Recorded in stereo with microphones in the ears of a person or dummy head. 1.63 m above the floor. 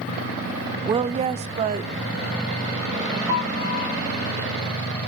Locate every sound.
0.8 s a woman speaking: 25° right (ahead or behind), 0.5 m; by 3.2 s 30° right (ahead or behind), 2.5 m
3.3 s a piano: 55° right (ahead or behind), 9.5 m